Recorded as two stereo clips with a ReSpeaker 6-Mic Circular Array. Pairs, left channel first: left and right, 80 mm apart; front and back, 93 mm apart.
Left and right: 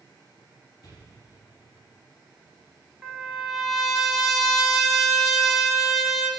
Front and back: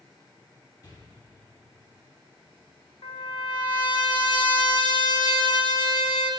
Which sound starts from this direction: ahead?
A trumpet, at 3.0 s.